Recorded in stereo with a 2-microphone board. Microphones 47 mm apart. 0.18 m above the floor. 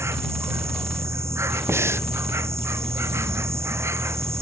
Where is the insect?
70° right (ahead or behind).